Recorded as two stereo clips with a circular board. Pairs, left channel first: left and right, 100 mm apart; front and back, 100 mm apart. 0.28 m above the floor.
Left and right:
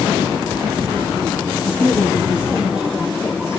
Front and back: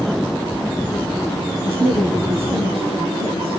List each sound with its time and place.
1.6 s a woman speaking: 170° right, 4.5 m